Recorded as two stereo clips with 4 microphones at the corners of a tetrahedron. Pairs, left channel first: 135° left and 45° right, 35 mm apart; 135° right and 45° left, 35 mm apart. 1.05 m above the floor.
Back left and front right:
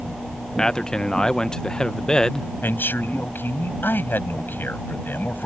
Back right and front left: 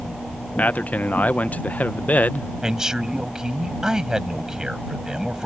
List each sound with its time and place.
0.6 s a man speaking: 165° right
2.6 s a man speaking: 120° left